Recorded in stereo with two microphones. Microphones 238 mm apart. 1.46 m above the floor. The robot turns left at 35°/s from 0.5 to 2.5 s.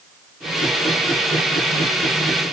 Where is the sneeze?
I don't hear a sneeze.